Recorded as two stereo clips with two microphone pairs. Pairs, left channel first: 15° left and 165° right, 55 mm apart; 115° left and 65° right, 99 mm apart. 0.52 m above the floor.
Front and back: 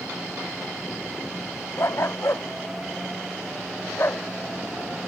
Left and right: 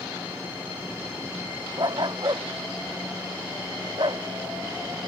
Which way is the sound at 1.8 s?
20° right.